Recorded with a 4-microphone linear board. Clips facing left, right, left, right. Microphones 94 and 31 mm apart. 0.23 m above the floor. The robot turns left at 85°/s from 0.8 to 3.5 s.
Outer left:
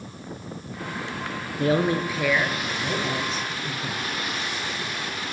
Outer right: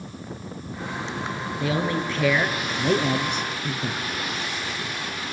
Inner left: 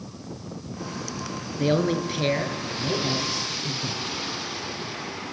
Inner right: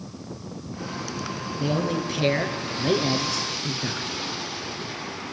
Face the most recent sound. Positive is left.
turn(degrees=-110)